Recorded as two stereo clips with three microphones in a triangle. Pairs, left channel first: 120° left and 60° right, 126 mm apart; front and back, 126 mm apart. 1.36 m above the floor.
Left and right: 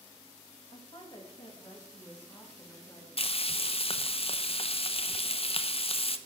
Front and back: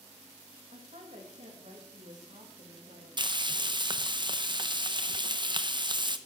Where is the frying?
140° left, 0.6 m.